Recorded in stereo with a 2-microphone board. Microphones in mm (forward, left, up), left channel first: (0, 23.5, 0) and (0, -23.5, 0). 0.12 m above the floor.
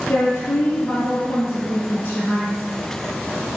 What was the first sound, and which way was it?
A woman speaking, 55° left (ahead or behind).